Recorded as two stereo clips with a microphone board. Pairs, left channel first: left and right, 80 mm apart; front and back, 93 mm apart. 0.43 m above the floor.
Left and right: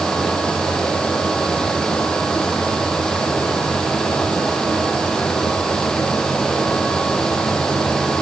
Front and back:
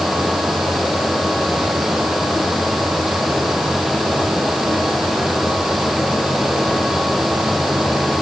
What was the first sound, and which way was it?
Only background noise.